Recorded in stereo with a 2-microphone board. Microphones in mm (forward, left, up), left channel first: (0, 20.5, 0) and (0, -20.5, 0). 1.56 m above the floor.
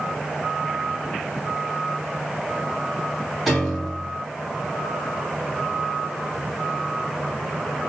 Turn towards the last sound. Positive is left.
turn(degrees=0)  # may be behind; listen again after turning